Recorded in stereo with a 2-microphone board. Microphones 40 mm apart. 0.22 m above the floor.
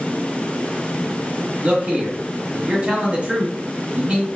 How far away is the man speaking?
About 1.1 m.